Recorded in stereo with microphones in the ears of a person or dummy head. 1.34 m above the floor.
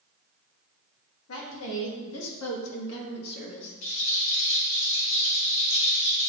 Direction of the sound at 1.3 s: 70° left (ahead or behind).